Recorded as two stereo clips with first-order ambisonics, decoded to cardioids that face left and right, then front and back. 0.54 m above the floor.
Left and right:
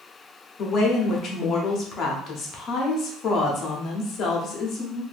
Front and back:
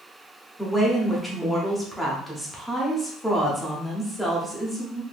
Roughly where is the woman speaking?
Left.